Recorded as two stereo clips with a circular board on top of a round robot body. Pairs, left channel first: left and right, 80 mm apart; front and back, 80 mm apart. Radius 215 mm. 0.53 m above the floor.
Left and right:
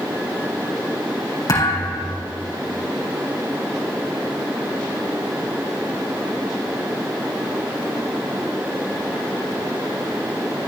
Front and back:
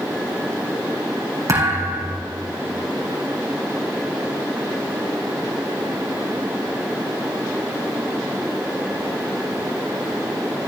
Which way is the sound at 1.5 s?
130° left.